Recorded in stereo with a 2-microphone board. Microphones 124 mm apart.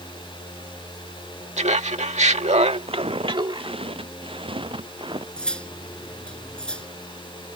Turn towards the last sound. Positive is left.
turn(degrees=10)  # may be behind; listen again after turning